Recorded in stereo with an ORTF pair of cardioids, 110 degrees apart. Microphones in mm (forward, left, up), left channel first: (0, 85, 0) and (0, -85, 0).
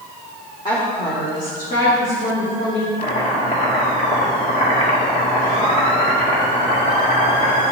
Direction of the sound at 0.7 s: 25° left.